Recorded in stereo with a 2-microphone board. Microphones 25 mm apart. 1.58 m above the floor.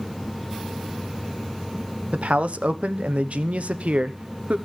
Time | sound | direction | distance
2.1 | a man speaking | 75° right (ahead or behind) | 0.9 m